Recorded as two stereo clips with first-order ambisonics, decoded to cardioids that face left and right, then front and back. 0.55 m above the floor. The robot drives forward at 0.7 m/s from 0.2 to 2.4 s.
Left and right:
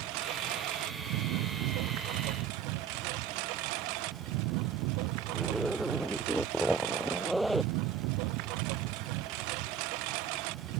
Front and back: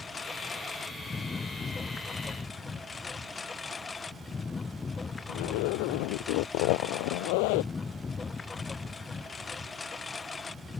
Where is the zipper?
Straight ahead.